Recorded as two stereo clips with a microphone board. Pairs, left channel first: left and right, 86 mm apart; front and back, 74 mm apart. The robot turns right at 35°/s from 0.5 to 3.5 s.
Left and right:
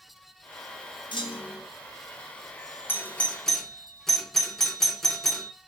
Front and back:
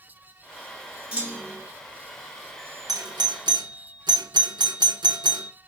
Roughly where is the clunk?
Left.